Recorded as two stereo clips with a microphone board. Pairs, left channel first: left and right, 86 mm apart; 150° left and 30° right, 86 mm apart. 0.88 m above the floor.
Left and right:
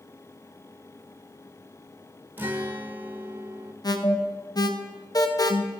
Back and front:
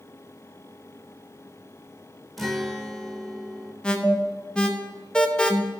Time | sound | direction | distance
2.4 | a guitar | 125° right | 0.9 m
3.8 | an alarm | 75° left | 0.9 m